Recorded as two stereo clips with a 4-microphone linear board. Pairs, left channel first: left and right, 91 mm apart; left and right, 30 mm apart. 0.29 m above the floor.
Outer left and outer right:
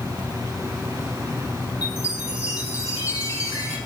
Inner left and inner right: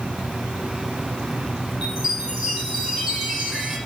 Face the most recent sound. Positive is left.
turn(degrees=-20)  # may be behind; listen again after turning